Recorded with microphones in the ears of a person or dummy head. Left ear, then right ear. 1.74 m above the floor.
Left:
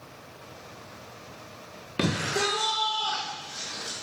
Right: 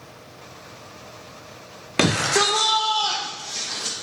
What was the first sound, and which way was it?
A shout, 25° right (ahead or behind).